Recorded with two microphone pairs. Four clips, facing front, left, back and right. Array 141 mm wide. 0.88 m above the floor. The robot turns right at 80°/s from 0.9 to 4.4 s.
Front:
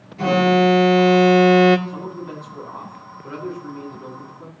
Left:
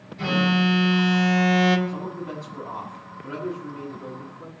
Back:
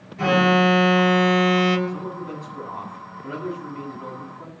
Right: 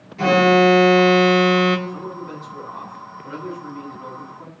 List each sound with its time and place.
0.2 s an alarm: 80° right, 1.7 m; by 1.8 s 10° right, 1.7 m
1.9 s a man speaking: 50° left, 8 m; by 4.5 s 105° right, 8 m